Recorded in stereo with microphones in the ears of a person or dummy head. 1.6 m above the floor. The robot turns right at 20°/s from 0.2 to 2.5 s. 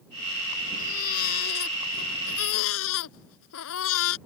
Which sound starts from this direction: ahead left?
A baby crying, at 0.8 s.